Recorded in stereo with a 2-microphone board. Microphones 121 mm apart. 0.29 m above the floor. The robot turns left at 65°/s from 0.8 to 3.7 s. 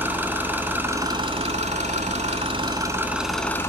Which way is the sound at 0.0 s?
15° right.